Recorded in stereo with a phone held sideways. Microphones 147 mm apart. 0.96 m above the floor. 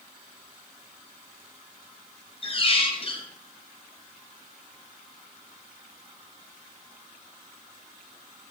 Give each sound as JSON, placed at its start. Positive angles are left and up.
{"t": 2.4, "sound": "a squeak", "side_deg": 40, "distance_m": 0.6}